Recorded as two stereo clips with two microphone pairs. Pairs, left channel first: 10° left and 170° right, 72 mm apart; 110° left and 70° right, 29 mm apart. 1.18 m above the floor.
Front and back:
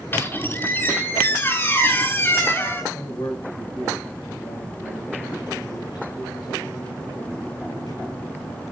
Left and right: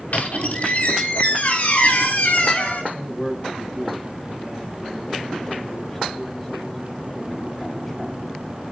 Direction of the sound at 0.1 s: 75° left.